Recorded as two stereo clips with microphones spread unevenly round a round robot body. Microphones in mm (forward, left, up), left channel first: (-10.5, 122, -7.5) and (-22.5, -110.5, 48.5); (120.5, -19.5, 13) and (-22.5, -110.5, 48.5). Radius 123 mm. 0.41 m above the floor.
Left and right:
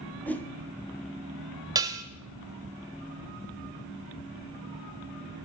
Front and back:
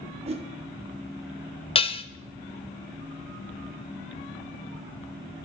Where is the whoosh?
155° left, 1.1 m.